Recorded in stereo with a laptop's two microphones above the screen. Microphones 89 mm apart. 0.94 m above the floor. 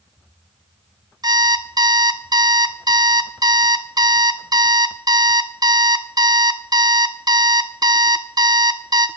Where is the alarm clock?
50° right (ahead or behind), 0.6 m.